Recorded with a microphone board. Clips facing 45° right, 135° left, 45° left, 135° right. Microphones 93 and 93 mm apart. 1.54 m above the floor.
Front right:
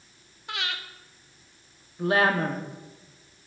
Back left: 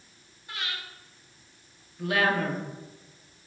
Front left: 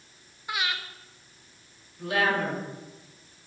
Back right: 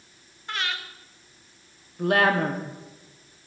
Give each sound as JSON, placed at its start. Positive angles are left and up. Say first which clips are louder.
{"t": 0.5, "sound": "breathing", "louder": "front right 4 dB, even", "azimuth_deg": -35, "distance_m": 0.7}
{"t": 2.0, "sound": "a woman speaking", "louder": "front right 3 dB, back right 5 dB", "azimuth_deg": -100, "distance_m": 0.9}